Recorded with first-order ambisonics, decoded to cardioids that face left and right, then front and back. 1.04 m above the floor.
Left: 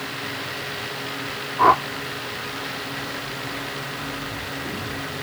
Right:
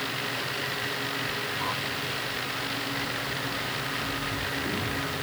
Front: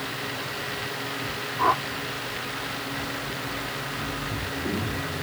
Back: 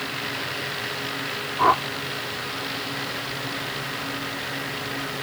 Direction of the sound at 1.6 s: 100° left.